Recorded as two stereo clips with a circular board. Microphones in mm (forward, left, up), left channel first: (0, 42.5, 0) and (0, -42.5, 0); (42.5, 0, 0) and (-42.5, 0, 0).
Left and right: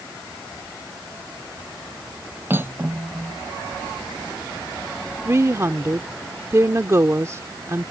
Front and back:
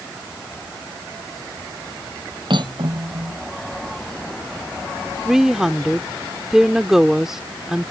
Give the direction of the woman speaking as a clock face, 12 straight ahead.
3 o'clock.